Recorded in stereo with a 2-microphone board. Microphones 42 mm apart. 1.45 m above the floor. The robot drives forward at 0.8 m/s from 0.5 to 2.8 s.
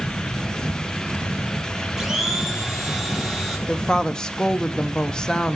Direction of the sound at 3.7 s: 15° left (ahead or behind).